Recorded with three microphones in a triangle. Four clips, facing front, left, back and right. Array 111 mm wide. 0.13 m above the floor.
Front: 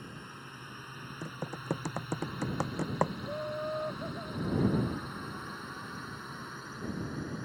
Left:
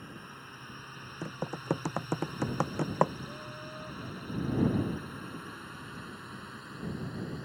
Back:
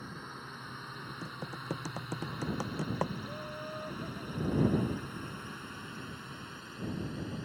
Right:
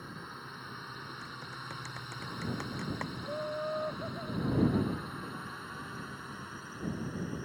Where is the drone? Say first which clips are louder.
Right 2 dB, back 2 dB; 135° right; by 7.5 s 15° right.